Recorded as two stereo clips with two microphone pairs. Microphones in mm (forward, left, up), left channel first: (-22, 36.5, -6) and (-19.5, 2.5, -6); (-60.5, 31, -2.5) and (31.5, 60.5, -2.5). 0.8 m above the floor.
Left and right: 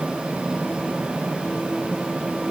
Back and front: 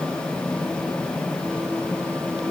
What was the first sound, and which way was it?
Only background noise.